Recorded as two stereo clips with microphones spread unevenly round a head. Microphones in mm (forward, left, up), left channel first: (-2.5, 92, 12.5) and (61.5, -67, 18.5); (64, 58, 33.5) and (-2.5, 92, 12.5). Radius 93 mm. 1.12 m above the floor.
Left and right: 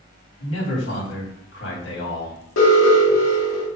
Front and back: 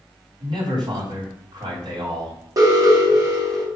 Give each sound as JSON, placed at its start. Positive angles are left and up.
{"t": 0.4, "sound": "a man speaking", "azimuth_deg": 135, "distance_m": 3.5}
{"t": 2.6, "sound": "an alarm", "azimuth_deg": 115, "distance_m": 3.0}